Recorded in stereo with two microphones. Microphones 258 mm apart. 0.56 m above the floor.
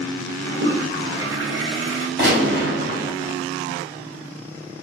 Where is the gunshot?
45° right (ahead or behind), 2 m.